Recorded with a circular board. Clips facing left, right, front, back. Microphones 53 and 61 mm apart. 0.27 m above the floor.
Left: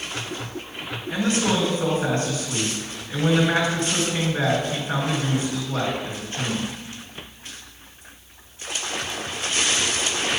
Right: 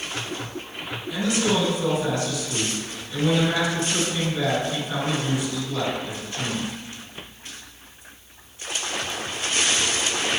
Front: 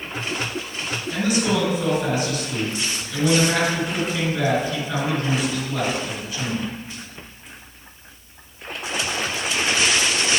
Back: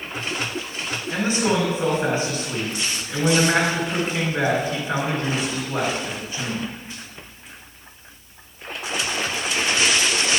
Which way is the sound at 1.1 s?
125° left.